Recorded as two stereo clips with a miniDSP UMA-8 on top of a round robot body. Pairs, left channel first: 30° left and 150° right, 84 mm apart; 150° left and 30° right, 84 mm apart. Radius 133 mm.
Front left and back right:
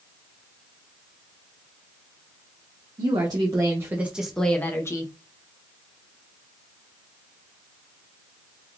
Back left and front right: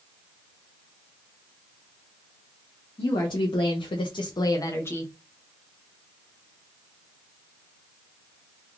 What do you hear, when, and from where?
3.0 s a woman speaking: straight behind, 0.9 m; by 5.1 s 80° left, 0.8 m